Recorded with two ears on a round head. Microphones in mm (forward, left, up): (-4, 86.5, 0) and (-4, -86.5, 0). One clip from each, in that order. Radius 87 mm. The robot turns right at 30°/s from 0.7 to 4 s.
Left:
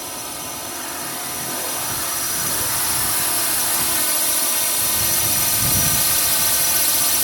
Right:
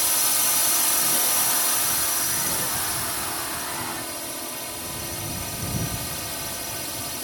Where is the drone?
55° right; by 7.2 s 45° left.